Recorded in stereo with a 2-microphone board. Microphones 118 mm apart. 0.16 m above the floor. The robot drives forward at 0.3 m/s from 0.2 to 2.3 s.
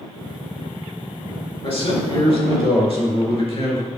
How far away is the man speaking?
About 3 m.